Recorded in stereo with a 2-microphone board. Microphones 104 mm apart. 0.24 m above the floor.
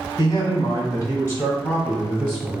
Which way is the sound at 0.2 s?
35° left (ahead or behind).